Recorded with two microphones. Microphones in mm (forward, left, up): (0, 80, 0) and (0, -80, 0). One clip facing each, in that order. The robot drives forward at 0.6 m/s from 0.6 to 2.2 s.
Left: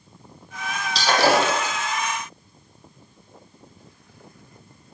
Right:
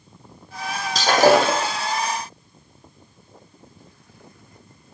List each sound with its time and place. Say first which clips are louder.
0.9 s breaking glass: right 4 dB; 50° right (ahead or behind), 5.5 m; by 1.7 s 55° right (ahead or behind), 5 m